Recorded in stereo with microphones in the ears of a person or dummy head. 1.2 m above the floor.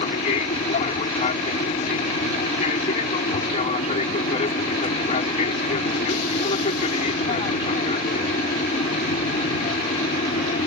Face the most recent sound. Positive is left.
turn(degrees=40)  # may be behind; listen again after turning